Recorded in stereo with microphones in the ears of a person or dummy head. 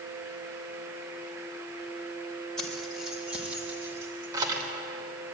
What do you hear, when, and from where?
2.6 s keys jangling: centre (ahead or behind), 3.5 m; by 4.7 s 25° right (ahead or behind), 3.5 m